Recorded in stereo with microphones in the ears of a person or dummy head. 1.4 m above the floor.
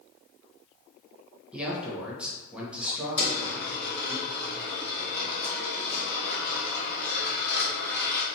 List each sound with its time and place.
1.5 s a man speaking: 10° right (ahead or behind), 1.0 m
3.2 s a dropped coin: 10° left (ahead or behind), 1.9 m